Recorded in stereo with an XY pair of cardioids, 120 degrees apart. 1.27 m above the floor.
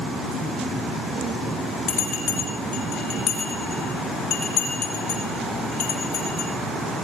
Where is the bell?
65° left, 8 m.